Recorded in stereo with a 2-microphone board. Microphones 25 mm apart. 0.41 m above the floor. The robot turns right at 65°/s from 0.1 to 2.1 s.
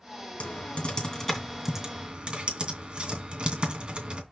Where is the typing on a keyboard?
70° left (ahead or behind), 2.5 m; by 4.2 s 35° right (ahead or behind), 2.5 m.